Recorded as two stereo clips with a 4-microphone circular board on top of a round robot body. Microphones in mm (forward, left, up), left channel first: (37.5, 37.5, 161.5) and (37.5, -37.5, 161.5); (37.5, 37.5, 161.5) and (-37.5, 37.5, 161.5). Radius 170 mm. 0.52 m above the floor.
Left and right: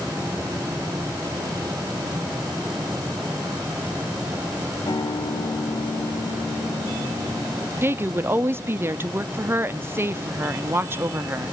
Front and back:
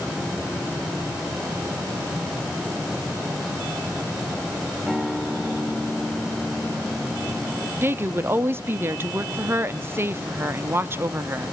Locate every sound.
4.9 s a guitar: 100° left, 3 m
7.8 s a woman speaking: 135° right, 1.4 m